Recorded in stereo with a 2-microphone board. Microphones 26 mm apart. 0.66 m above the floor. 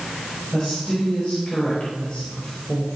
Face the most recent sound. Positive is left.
turn(degrees=50)  # may be behind; listen again after turning